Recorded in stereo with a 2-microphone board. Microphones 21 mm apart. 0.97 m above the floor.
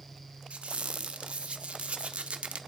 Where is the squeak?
70° right (ahead or behind), 0.7 m.